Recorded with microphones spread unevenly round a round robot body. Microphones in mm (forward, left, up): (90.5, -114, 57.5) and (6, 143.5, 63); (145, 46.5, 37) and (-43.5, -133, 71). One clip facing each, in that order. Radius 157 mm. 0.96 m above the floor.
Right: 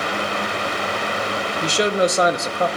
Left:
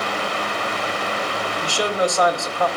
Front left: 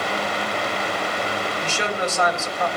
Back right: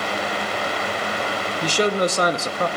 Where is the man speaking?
120° right, 1.0 m.